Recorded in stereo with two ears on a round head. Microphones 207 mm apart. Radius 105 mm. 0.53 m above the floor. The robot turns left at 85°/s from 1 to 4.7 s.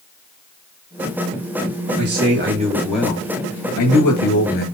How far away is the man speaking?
About 7.5 m.